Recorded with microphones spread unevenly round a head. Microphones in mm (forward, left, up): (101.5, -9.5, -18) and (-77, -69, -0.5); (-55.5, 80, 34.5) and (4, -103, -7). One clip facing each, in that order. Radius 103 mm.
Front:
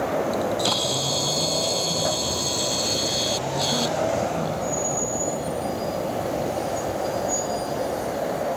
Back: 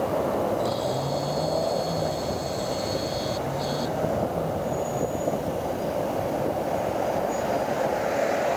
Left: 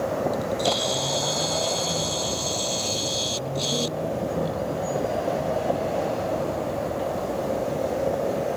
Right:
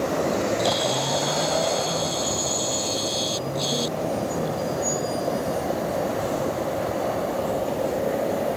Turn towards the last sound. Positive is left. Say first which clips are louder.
# even, right 2 dB
turn(degrees=20)